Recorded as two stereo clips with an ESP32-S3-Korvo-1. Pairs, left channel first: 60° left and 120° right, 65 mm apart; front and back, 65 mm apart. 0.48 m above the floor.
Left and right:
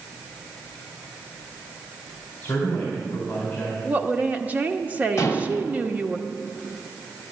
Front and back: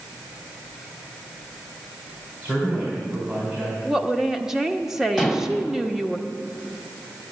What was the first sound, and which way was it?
A man speaking, 125° left.